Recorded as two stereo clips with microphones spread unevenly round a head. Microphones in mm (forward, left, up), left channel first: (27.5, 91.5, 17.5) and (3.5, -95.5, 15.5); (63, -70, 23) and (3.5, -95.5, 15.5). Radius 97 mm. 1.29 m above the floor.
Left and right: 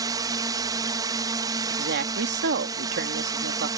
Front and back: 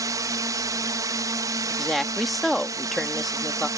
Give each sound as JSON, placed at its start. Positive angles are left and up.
{"t": 0.0, "sound": "a drone", "azimuth_deg": -165}
{"t": 1.7, "sound": "a woman speaking", "azimuth_deg": -65}